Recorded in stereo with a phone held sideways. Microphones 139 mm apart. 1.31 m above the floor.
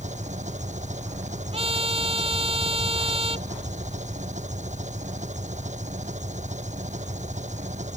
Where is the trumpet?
45° right (ahead or behind).